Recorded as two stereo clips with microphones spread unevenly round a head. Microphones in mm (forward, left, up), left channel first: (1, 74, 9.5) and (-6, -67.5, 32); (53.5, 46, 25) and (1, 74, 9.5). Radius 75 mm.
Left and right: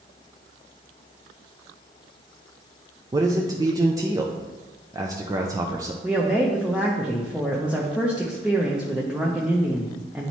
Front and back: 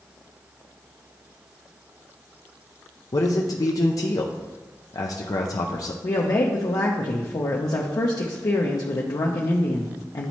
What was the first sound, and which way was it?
A man speaking, 25° right.